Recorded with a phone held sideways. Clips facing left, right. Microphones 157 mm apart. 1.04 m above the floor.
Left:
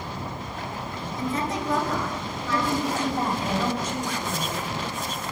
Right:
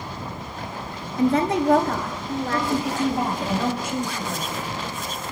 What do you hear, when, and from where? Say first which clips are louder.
1.2 s a woman speaking: right 9 dB; 65° right (ahead or behind), 1.2 m; by 3.5 s 50° right (ahead or behind), 3 m
2.5 s a woman speaking: left 1 dB; 10° right (ahead or behind), 5.5 m